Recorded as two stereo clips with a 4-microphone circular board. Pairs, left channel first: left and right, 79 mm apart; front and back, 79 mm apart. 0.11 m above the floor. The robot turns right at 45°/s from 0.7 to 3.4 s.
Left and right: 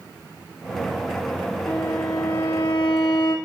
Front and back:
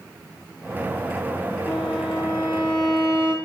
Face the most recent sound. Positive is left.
turn(degrees=110)